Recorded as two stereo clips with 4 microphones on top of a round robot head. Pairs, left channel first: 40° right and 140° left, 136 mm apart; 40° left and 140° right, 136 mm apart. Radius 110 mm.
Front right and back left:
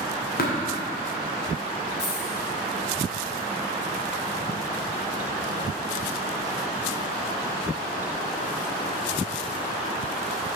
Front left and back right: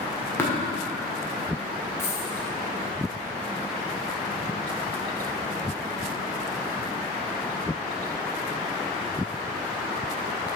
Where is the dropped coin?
30° right, 1.5 m.